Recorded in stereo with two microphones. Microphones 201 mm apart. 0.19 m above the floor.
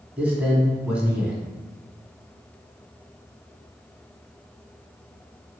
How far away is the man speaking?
About 1.2 m.